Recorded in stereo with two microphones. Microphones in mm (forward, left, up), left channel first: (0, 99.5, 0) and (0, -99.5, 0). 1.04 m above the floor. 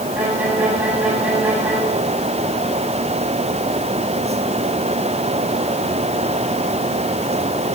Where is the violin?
5° right (ahead or behind), 9 m.